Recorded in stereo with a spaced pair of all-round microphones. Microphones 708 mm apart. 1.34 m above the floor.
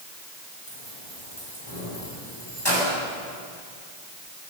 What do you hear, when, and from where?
0.7 s keys jangling: 40° left (ahead or behind), 9.5 m; by 2.9 s 35° left (ahead or behind), 8 m